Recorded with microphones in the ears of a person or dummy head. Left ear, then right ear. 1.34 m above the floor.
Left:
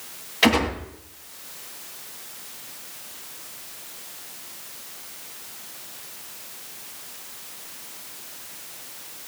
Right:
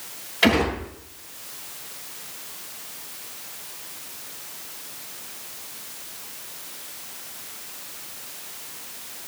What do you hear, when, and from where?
0.4 s a gunshot: 10° left (ahead or behind), 6 m